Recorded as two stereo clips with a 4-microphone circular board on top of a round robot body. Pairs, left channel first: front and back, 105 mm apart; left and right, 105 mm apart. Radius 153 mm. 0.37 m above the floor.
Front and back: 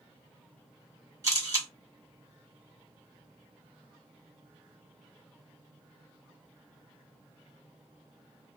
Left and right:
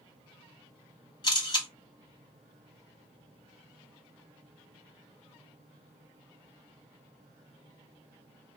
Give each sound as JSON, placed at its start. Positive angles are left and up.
{"t": 1.2, "sound": "a camera shutter", "azimuth_deg": 130, "distance_m": 1.8}